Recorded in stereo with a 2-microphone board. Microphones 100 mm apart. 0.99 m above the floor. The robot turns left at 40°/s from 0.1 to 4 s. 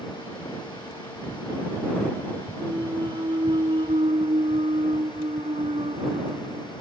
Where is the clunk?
25° right; by 6.7 s 85° right.